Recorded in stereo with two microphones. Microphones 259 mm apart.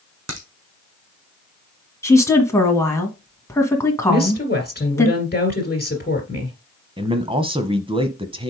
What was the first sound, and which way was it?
A crack, 80° right.